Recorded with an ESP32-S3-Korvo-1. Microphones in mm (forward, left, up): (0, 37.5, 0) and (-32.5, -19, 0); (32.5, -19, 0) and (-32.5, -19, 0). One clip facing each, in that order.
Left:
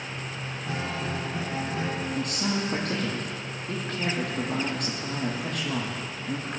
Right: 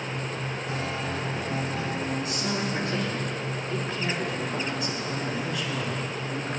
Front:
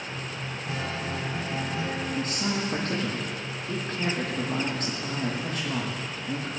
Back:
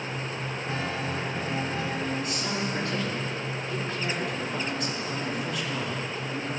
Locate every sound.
0.7 s a guitar: 80° left, 6.5 m
2.1 s a man speaking: 40° left, 7 m